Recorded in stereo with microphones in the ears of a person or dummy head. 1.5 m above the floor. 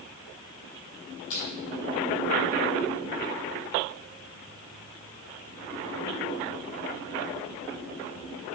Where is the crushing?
90° left, 4 m.